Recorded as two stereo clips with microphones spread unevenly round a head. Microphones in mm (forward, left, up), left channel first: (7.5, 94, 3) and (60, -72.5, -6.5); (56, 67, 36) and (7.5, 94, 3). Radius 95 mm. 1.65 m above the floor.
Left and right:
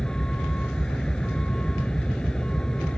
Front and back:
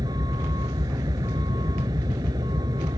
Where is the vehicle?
165° right.